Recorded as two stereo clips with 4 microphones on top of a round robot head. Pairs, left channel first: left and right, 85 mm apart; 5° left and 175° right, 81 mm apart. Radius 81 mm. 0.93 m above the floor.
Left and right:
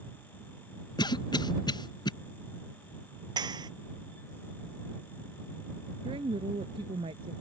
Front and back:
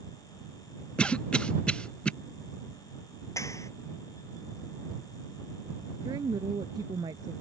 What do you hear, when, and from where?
1.0 s a cough: 80° left
3.4 s a clap: 55° right
6.0 s a woman speaking: 125° right